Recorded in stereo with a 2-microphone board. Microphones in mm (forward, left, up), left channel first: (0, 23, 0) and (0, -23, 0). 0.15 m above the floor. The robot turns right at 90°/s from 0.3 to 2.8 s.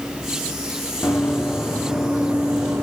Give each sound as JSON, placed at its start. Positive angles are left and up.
{"t": 1.0, "sound": "running footsteps", "side_deg": 75, "distance_m": 5.0}